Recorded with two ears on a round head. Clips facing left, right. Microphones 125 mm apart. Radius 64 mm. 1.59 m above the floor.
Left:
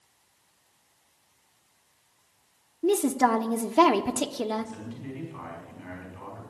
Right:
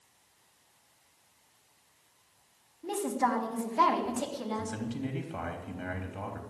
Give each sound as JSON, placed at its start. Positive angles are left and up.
{"t": 2.8, "sound": "a woman speaking", "side_deg": 80, "distance_m": 0.9}
{"t": 4.5, "sound": "a man speaking", "side_deg": -85, "distance_m": 3.0}